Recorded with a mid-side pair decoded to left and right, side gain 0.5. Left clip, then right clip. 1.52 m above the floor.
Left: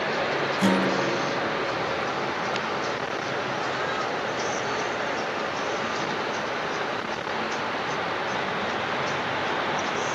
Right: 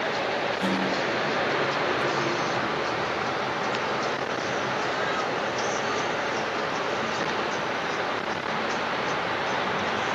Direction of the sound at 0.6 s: 55° left.